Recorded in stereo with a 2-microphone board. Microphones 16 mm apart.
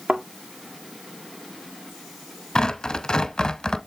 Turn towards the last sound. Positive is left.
turn(degrees=55)  # may be behind; listen again after turning